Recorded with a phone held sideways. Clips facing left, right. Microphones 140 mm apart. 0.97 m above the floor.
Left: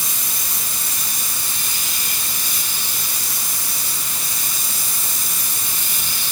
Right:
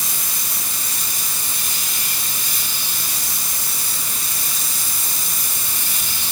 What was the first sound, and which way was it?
Only background noise.